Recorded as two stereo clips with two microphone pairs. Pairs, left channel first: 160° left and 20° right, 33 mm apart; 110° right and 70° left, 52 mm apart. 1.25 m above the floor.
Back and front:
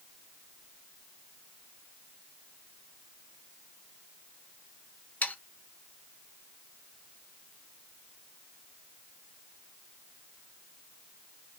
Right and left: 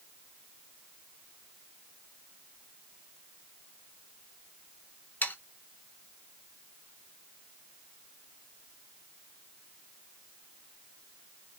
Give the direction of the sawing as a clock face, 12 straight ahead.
6 o'clock.